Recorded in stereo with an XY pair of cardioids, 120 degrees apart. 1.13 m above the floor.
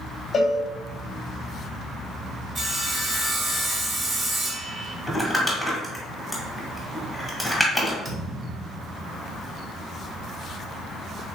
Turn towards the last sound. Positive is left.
turn(degrees=-35)